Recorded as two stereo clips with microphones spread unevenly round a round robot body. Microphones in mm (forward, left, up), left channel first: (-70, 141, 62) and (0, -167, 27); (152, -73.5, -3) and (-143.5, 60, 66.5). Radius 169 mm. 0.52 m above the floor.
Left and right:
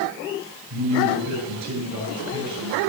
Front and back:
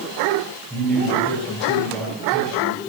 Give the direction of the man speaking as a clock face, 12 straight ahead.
4 o'clock.